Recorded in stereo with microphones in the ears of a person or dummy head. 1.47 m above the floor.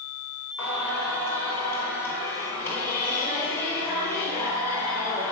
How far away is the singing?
About 1.9 m.